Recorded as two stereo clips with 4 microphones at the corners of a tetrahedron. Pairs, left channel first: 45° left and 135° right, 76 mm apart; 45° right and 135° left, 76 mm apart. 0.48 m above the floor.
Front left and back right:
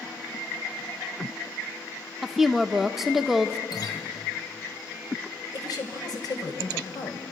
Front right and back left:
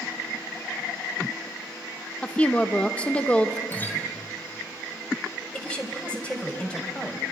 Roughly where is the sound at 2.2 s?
Ahead right.